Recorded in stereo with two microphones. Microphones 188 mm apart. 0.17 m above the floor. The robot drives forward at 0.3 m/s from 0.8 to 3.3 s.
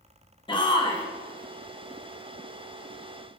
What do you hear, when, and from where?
0.5 s a shout: 25° left (ahead or behind), 1.1 m